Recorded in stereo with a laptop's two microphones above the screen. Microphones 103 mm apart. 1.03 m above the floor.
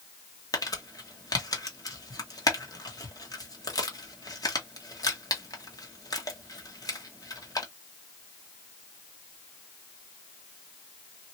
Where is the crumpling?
35° left (ahead or behind), 1.2 m.